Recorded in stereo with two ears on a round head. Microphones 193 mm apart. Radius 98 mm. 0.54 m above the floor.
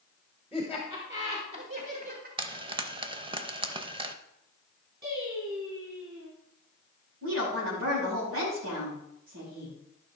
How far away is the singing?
About 5 m.